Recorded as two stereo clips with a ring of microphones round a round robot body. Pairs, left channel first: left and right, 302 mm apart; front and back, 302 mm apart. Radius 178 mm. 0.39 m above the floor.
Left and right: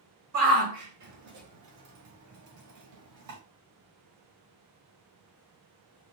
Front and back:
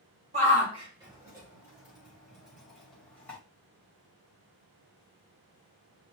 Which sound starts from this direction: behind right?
A shout, at 0.3 s.